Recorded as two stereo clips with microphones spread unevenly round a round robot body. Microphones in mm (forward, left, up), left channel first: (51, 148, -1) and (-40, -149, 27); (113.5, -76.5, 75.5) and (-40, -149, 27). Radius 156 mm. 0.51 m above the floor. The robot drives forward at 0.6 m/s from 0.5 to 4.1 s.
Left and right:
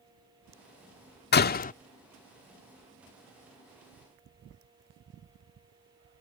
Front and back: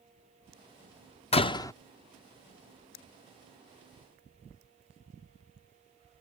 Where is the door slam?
80° left; by 1.7 s 110° left.